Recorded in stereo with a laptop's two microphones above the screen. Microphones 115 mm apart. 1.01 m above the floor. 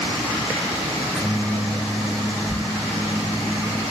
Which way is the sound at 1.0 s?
10° right (ahead or behind).